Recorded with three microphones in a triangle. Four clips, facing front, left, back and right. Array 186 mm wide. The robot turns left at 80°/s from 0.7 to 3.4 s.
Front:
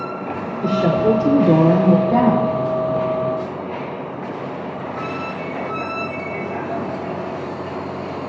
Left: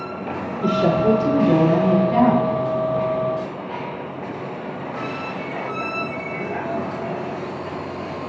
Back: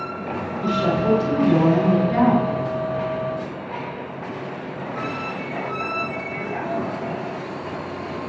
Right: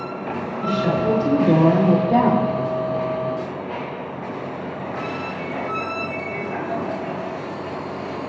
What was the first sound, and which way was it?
A woman speaking, 50° left.